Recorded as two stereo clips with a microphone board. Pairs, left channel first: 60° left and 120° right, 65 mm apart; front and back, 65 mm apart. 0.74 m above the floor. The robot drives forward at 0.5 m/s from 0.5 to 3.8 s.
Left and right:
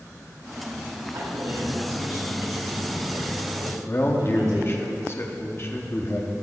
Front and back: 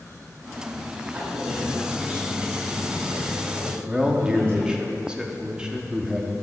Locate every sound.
1.1 s a man speaking: 115° right, 3 m; by 4.9 s 135° right, 3.5 m
3.9 s a man speaking: 105° left, 0.9 m